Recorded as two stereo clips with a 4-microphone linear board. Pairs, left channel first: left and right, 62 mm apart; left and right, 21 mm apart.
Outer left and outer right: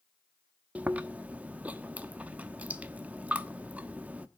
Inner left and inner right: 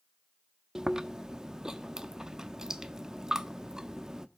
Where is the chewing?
25° right (ahead or behind), 0.8 m.